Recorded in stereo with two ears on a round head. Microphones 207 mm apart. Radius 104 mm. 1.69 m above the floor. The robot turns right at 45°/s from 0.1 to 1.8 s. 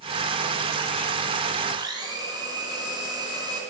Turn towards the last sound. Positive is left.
turn(degrees=-20)  # may be behind; listen again after turning